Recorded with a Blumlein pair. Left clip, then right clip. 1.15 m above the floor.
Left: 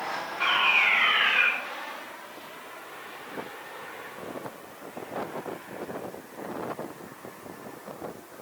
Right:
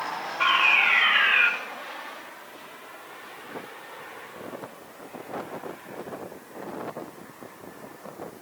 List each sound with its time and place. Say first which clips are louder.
0.4 s a fire alarm: right 2 dB; 70° right, 5 m